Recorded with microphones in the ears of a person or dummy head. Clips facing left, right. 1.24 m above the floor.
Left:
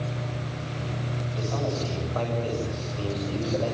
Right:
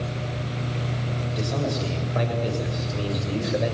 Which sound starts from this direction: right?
A man speaking, at 1.3 s.